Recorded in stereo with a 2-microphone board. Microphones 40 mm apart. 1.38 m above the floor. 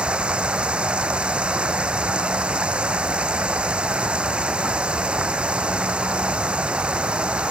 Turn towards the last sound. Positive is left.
turn(degrees=-25)  # may be behind; listen again after turning